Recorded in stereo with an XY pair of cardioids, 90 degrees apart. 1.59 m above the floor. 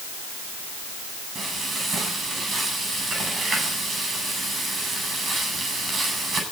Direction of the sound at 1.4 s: 45° right.